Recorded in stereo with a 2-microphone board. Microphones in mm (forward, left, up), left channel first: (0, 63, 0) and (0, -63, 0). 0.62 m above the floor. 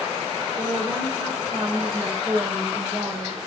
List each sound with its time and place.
0.6 s a woman speaking: 15° right (ahead or behind), 3 m